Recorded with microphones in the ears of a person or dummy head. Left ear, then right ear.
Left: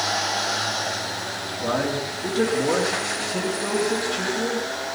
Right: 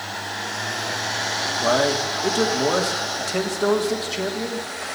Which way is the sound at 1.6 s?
65° right (ahead or behind).